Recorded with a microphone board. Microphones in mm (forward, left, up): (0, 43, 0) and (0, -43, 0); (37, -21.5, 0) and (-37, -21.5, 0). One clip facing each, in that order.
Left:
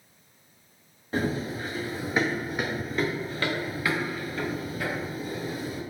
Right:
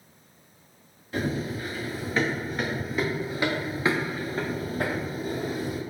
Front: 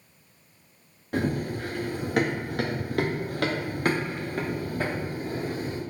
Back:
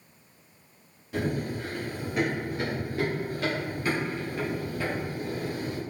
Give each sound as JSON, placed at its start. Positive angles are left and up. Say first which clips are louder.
{"t": 1.1, "sound": "running footsteps", "louder": "left 1 dB, front 2 dB", "azimuth_deg": 35, "distance_m": 1.6}